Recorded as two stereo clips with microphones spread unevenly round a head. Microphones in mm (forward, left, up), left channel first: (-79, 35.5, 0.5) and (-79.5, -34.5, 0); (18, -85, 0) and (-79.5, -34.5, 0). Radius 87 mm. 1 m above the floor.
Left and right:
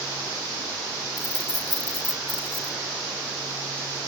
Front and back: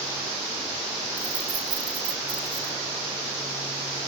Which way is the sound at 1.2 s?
110° left.